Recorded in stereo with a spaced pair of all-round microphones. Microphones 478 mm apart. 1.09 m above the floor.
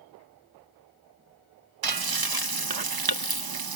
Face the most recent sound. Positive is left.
turn(degrees=-50)  # may be behind; listen again after turning